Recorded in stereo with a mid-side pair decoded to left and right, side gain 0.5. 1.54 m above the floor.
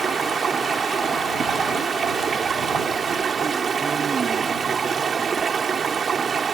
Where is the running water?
35° right.